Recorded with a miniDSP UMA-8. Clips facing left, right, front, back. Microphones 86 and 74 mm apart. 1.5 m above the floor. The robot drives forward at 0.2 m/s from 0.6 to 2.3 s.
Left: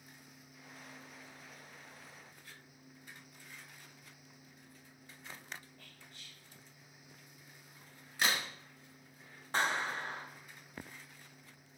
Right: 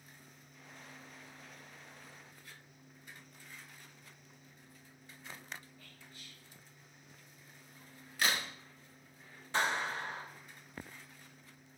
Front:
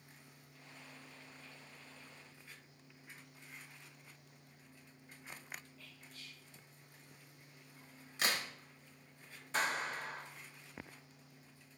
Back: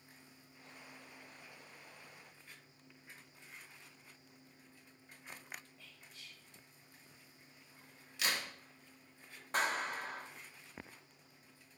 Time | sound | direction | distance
5.8 | whispering | 110° left | 1.8 m
8.2 | a crack | 35° left | 1.0 m
9.5 | a clap | 135° left | 1.8 m